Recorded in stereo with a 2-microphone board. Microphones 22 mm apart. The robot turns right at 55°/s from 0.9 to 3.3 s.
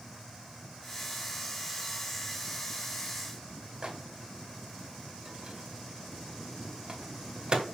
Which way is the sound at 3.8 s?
40° right (ahead or behind).